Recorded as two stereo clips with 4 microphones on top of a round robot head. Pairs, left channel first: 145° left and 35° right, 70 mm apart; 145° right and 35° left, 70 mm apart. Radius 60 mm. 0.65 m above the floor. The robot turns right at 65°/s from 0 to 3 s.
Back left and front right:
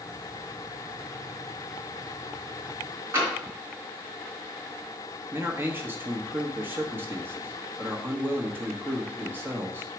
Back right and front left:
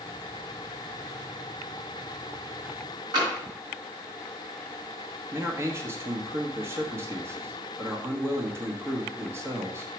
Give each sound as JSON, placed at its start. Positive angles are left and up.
{"t": 3.1, "sound": "tapping", "azimuth_deg": 20, "distance_m": 4.0}
{"t": 5.3, "sound": "a man speaking", "azimuth_deg": 10, "distance_m": 1.3}